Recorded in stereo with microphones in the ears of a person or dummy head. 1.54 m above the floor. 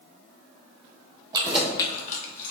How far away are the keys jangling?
About 0.7 m.